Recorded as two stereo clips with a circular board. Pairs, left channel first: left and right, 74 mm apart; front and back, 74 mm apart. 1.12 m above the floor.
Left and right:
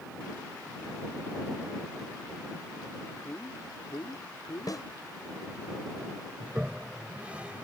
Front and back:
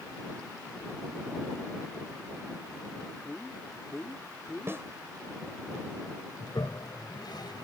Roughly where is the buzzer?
No buzzer in this recording.